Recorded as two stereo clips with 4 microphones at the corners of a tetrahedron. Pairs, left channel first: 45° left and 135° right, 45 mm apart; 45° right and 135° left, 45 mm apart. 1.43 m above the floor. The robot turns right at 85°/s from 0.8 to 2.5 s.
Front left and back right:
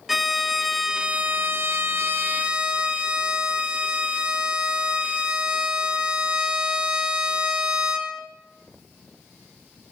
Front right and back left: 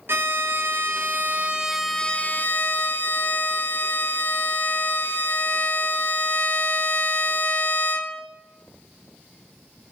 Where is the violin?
140° left, 1.2 m; by 8.3 s 75° right, 1.2 m.